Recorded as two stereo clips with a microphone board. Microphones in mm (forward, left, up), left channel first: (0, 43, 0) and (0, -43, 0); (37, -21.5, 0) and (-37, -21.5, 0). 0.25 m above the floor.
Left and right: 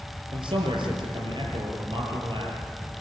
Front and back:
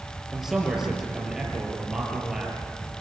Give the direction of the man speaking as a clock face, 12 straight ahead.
3 o'clock.